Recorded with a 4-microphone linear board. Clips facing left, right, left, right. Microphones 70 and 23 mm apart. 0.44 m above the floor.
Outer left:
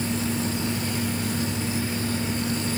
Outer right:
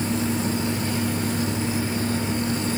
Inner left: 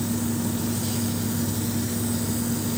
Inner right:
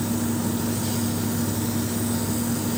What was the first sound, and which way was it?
Only background noise.